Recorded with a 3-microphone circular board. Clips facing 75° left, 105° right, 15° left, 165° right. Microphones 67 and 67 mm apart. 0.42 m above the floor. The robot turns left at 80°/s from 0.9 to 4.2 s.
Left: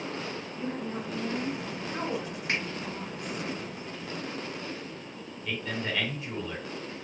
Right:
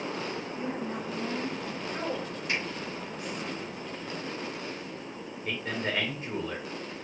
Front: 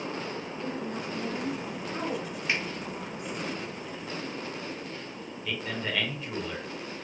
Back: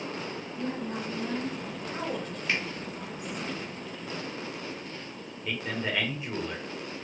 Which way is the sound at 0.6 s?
150° right.